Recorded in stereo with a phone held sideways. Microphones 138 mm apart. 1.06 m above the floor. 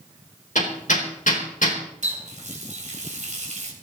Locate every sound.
0.6 s hammering: 70° left (ahead or behind), 3.5 m
2.0 s a running tap: 60° right (ahead or behind), 3.5 m